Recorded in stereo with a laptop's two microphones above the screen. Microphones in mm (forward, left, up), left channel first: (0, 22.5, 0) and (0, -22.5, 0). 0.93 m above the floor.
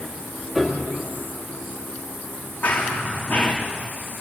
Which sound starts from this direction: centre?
A piano, at 0.6 s.